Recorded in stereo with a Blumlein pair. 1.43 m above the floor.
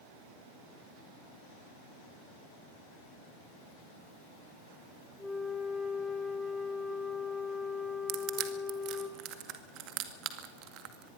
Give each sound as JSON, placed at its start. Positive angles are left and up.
{"t": 5.2, "sound": "a flute", "azimuth_deg": 5, "distance_m": 2.5}
{"t": 8.1, "sound": "crushing", "azimuth_deg": -35, "distance_m": 2.0}